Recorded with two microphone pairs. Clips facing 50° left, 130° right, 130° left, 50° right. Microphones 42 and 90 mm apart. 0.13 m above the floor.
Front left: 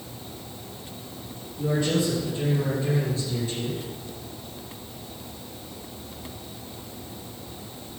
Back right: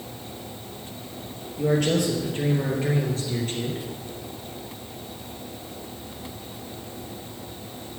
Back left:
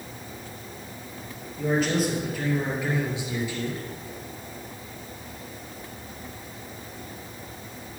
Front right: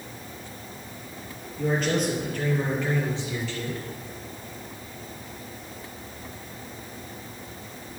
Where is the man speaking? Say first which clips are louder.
Back right 2 dB, back left 1 dB; 140° right, 3 m; by 3.9 s 160° right, 2 m.